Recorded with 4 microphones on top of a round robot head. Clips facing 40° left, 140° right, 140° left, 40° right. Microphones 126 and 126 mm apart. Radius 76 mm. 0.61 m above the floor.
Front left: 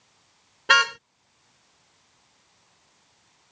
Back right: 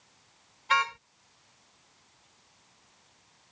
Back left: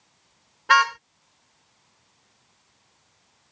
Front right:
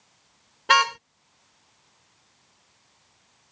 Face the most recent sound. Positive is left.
turn(degrees=25)